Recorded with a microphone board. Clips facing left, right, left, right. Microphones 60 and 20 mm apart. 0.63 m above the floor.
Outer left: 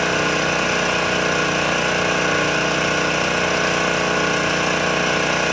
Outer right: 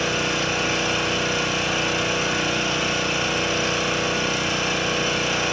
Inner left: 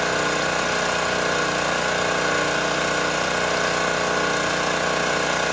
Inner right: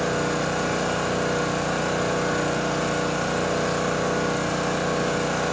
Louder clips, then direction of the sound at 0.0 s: Outer left 5 dB, inner left 2 dB; 65° left (ahead or behind).